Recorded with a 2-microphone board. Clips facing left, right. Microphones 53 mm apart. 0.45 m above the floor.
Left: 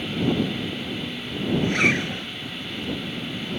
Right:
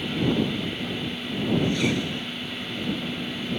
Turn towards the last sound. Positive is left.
turn(degrees=55)  # may be behind; listen again after turning